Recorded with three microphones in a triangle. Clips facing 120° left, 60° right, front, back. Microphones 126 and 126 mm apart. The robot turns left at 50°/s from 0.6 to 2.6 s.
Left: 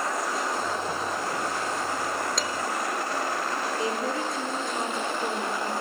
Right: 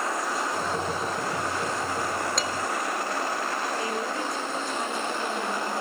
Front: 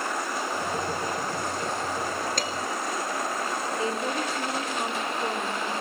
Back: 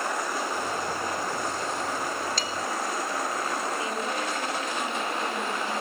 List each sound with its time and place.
2.4 s dishes clattering: 30° left, 1.6 m; by 2.5 s 25° left, 1.6 m
3.8 s a woman speaking: 55° left, 4.5 m